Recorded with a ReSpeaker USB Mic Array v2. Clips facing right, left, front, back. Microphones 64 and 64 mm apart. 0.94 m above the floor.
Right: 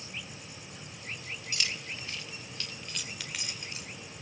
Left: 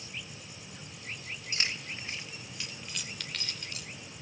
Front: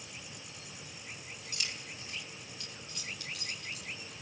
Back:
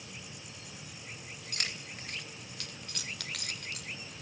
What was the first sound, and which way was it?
Keys jangling, 145° left.